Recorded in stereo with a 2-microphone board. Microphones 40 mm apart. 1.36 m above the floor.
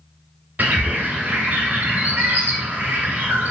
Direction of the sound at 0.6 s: 40° right (ahead or behind).